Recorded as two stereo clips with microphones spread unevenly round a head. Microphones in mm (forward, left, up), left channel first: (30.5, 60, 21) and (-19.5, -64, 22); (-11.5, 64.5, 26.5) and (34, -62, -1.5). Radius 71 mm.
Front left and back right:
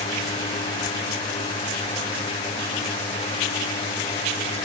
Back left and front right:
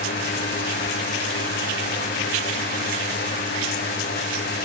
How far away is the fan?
About 5.5 m.